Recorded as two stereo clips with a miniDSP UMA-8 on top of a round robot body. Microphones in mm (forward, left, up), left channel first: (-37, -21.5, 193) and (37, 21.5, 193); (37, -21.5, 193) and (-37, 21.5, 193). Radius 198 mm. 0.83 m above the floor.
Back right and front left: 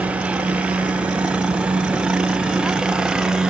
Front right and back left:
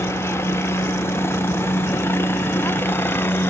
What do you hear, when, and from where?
0.0 s a helicopter: 30° right; by 3.5 s 40° right